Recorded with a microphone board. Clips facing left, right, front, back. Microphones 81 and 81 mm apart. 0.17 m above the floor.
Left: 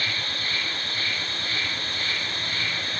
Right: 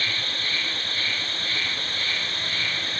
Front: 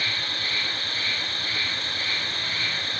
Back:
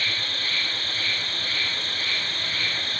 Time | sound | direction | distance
0.0 | an insect | 40° left | 1.0 m